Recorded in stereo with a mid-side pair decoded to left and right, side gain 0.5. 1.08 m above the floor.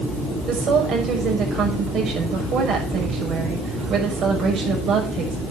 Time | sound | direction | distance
0.5 | a woman speaking | 60° right | 6.5 m